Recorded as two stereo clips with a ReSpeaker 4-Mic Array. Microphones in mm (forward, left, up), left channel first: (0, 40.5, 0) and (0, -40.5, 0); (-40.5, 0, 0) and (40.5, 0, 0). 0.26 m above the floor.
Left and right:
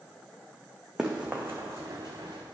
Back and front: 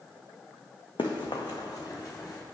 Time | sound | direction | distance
1.0 | running footsteps | 175° right | 1.2 m